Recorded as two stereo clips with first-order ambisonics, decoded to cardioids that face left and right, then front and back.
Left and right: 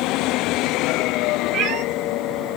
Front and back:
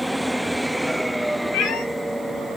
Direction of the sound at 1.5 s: 40° right.